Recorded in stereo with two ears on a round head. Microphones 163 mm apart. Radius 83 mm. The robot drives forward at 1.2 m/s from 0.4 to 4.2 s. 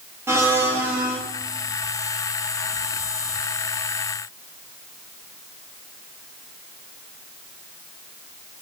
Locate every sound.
0.3 s a blender: 15° right (ahead or behind), 3 m; by 1.2 s 10° right (ahead or behind), 4 m